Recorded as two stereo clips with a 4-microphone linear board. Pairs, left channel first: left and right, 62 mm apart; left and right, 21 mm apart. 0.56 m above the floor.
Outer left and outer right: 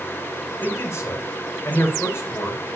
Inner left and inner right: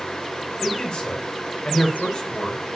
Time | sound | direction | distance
0.6 | a man speaking | 45° left (ahead or behind) | 2.5 m